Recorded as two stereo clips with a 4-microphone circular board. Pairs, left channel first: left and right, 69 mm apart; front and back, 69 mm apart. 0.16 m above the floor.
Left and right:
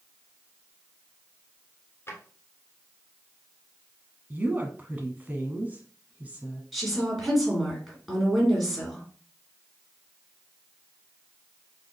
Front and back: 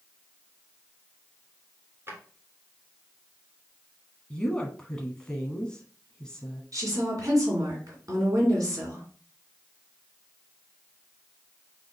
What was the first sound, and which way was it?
A drawer, 135° left.